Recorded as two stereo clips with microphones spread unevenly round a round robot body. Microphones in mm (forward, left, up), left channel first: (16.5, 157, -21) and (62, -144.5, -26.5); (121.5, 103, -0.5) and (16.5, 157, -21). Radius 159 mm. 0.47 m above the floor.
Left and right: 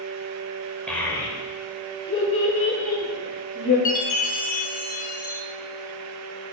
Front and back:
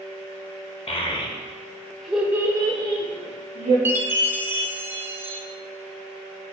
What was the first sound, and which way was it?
A child speaking, 10° left.